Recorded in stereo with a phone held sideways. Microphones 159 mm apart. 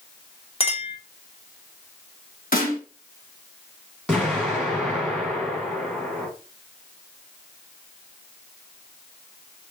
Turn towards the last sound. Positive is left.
turn(degrees=5)  # may be behind; listen again after turning